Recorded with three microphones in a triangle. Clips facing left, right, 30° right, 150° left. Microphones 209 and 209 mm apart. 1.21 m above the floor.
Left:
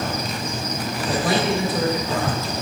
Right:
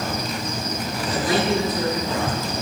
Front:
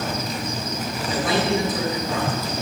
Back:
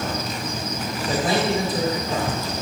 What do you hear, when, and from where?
1.1 s a man speaking: 100° left, 3.5 m